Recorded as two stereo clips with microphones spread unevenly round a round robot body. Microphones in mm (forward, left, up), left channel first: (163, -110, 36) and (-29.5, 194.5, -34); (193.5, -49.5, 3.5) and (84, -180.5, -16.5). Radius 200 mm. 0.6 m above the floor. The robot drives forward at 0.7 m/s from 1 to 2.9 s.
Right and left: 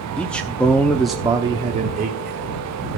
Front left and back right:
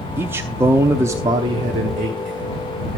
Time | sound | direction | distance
0.2 | a man speaking | 170° right | 0.7 m